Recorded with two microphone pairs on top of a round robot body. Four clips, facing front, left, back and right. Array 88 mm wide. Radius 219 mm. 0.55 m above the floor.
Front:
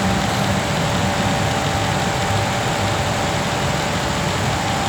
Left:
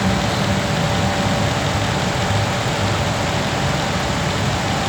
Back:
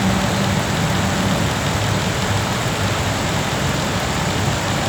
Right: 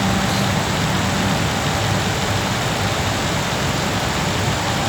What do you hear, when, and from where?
Only background noise.